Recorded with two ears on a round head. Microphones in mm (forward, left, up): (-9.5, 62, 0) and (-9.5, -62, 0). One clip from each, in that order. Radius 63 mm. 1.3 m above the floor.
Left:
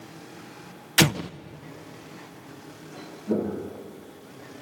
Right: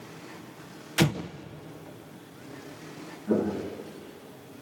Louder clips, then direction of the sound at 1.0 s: Left 6 dB; 40° left (ahead or behind).